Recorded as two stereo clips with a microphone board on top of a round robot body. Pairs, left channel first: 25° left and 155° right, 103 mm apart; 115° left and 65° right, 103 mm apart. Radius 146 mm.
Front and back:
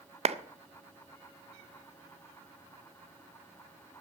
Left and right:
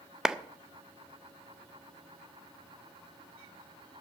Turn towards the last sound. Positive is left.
turn(degrees=-150)